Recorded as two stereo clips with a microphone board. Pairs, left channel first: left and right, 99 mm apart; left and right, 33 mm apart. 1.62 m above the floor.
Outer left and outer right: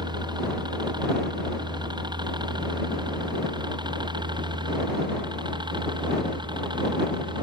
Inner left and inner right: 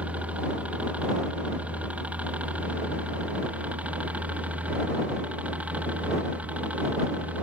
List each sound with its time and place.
0.0 s a helicopter: 50° right (ahead or behind); by 7.4 s 55° right (ahead or behind)